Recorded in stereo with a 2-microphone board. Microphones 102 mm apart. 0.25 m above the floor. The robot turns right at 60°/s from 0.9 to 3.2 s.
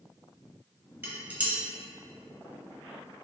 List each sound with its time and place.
1.0 s dishes clattering: 20° right (ahead or behind), 0.6 m; by 1.6 s 10° right (ahead or behind), 0.6 m